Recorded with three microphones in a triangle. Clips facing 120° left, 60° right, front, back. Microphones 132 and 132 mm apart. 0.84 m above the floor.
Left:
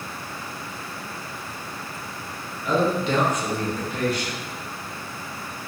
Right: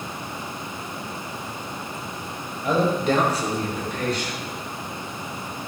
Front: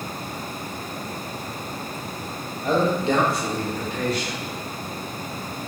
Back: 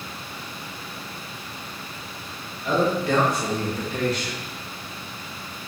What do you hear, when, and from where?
2.6 s a man speaking: 30° right, 0.8 m; by 4.4 s 165° right, 1.0 m